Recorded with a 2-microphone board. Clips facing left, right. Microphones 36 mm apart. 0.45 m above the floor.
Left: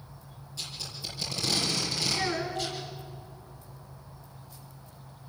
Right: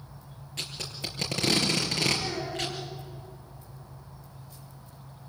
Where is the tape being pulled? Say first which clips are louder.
Right 3 dB; 65° right (ahead or behind), 4.5 m.